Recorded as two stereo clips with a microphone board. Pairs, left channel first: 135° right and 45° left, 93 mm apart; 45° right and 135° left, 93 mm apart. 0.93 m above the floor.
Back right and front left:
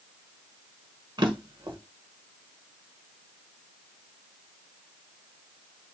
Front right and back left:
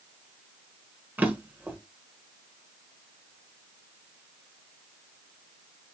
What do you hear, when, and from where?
1.2 s a drawer: 70° left, 1.1 m